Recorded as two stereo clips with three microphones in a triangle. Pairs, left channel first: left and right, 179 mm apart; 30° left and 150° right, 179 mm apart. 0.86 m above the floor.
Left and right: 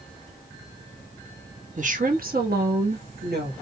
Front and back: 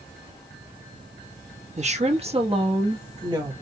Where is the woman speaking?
115° right, 1.0 m; by 3.5 s 85° right, 1.7 m.